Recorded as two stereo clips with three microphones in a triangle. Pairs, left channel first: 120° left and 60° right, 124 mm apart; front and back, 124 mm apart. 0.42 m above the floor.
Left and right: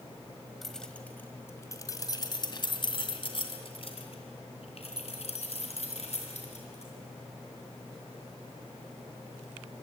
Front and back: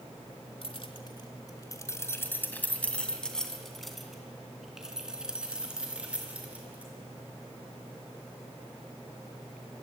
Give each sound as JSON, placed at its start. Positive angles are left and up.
{"t": 0.6, "sound": "keys jangling", "azimuth_deg": 30, "distance_m": 1.7}